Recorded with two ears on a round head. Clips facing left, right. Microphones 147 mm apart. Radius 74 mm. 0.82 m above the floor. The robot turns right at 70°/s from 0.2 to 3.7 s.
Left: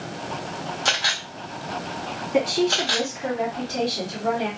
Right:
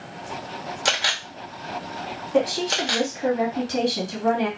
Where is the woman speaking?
170° left, 1.4 m; by 4.5 s 95° right, 1.4 m.